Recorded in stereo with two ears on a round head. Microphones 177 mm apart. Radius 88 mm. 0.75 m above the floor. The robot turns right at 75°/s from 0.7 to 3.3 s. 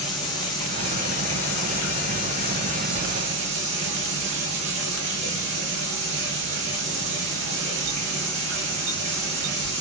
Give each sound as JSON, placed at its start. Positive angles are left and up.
{"t": 0.0, "sound": "running water", "azimuth_deg": 20, "distance_m": 4.5}